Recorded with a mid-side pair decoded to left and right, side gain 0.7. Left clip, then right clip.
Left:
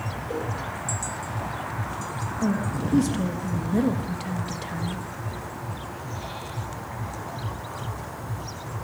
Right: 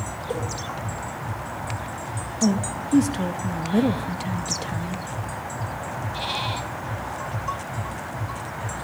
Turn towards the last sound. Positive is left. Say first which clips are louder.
# right 4 dB
turn(degrees=-10)